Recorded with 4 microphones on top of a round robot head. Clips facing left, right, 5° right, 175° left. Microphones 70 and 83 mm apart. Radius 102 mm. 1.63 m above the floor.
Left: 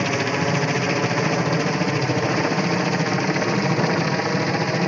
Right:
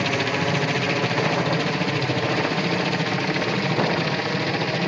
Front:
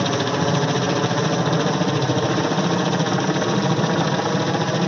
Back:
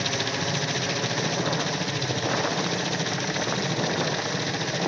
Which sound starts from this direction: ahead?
A helicopter, at 0.0 s.